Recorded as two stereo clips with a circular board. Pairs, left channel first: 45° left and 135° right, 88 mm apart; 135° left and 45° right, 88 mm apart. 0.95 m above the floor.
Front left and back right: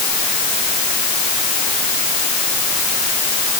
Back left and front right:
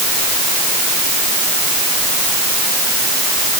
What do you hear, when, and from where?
Only background noise.